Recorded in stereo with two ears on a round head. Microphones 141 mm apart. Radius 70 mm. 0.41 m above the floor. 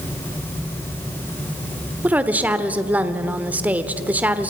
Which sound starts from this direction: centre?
A woman speaking, at 2.0 s.